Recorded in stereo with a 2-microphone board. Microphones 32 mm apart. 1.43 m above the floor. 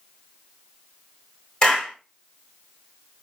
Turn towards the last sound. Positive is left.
turn(degrees=20)  # may be behind; listen again after turning